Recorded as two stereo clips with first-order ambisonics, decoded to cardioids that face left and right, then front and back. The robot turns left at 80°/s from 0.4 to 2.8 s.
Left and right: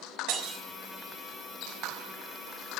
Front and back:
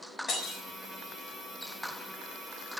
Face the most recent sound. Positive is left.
turn(degrees=100)